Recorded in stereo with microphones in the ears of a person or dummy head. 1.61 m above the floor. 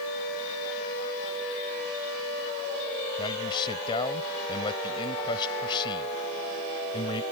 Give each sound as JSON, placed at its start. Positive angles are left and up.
{"t": 3.2, "sound": "a man speaking", "side_deg": 30}